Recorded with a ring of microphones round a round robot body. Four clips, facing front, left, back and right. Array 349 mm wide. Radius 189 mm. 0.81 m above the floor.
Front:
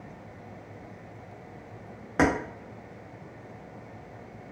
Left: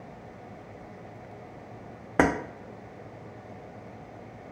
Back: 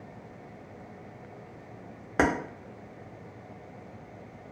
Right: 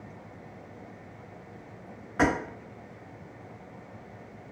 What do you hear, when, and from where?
2.2 s keys jangling: 100° left, 0.6 m